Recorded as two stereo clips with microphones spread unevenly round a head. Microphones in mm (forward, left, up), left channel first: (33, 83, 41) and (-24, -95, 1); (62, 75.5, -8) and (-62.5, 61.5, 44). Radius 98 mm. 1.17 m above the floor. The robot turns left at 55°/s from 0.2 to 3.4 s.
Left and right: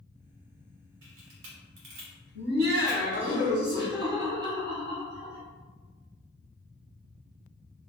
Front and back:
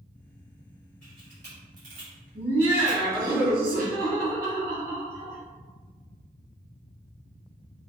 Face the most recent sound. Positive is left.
turn(degrees=-175)